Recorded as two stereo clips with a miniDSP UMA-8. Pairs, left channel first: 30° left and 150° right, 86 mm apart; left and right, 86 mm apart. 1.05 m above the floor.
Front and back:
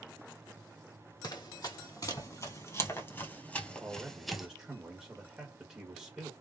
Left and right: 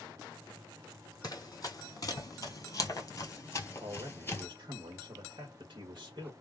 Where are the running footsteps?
50° left, 1.9 m; by 4.5 s 130° left, 1.1 m.